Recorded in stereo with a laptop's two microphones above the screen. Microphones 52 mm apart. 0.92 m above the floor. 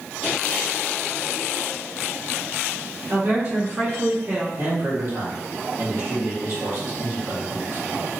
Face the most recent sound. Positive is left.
turn(degrees=-60)  # may be behind; listen again after turning